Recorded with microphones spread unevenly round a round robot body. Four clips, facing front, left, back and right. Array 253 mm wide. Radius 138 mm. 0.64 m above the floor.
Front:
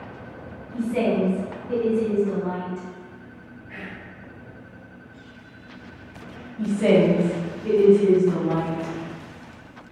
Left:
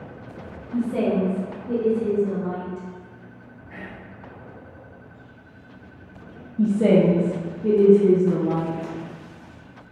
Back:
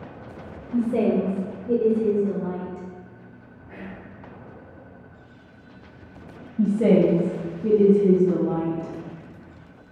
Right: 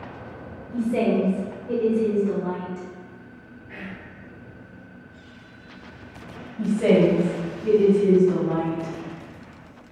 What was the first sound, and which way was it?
A woman speaking, 175° left.